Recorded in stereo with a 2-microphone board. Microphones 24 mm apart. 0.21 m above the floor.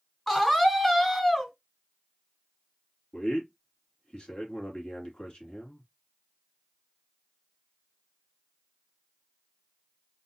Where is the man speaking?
45° left (ahead or behind), 2.5 m.